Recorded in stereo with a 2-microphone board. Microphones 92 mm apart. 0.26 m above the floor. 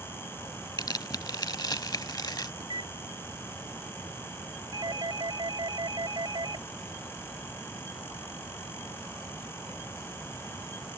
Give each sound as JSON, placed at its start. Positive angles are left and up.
{"t": 0.8, "sound": "tearing paper", "side_deg": 50}
{"t": 2.6, "sound": "a microwave", "side_deg": -60}
{"t": 4.7, "sound": "a doorbell", "side_deg": -55}